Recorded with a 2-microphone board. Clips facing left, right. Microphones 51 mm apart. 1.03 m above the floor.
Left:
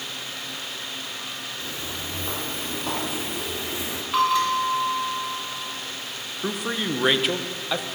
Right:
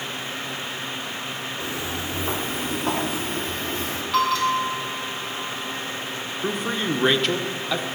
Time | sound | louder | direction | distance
1.6 | footsteps | right 5 dB | 20° right (ahead or behind) | 1.7 m
4.1 | a bell | even | 15° left (ahead or behind) | 2.5 m
6.4 | a man speaking | right 2 dB | 5° left (ahead or behind) | 0.5 m